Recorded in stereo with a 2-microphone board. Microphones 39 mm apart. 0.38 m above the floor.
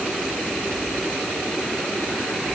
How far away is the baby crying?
I don't hear a baby crying.